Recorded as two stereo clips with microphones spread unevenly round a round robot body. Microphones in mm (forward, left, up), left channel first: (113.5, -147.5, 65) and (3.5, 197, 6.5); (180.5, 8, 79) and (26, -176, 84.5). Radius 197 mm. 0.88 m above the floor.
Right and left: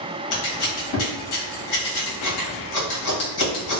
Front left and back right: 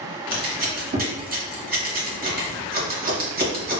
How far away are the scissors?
About 1.1 m.